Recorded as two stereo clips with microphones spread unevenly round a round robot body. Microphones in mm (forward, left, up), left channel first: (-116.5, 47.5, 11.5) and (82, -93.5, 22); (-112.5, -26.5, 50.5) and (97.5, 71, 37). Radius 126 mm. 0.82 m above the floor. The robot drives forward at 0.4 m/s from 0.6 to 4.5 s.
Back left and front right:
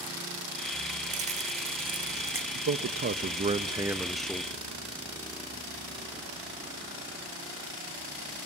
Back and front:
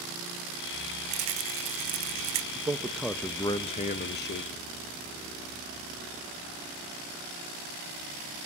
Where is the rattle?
25° left, 1.2 m; by 2.5 s 45° left, 0.8 m.